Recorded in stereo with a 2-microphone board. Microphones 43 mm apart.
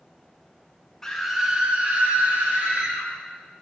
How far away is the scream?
About 0.6 m.